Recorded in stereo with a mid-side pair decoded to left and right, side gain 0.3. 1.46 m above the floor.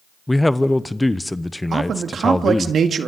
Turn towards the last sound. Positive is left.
turn(degrees=-70)